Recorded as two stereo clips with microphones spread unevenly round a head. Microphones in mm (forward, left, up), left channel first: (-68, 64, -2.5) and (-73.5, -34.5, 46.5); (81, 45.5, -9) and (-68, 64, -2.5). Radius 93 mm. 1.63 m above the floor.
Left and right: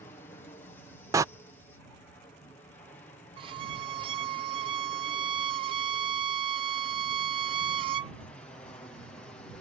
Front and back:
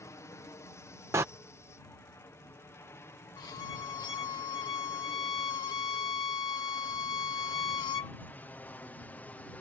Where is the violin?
75° right.